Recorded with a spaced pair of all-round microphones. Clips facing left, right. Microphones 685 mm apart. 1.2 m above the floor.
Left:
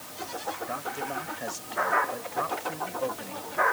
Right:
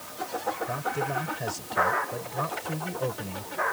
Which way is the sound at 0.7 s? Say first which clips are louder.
Right 4 dB; 65° right (ahead or behind).